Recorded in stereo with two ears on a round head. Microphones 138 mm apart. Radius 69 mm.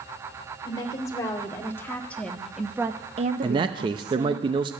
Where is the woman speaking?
25° left (ahead or behind), 2.5 m; by 4.4 s 65° right (ahead or behind), 1.3 m.